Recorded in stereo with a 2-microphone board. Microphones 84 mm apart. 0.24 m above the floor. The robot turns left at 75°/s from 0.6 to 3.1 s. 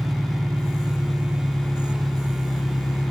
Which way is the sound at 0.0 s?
85° right.